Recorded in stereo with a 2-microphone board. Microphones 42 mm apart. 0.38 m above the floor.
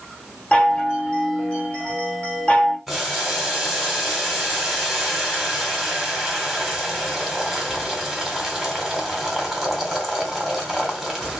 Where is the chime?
35° left (ahead or behind), 1.7 m.